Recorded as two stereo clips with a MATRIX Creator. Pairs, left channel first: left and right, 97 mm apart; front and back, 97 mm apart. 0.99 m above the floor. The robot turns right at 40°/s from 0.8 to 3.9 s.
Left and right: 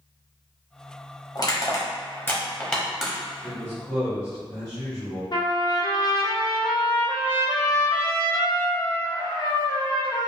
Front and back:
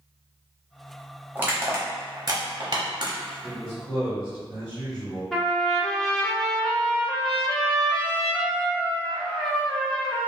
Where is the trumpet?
85° left, 0.6 m.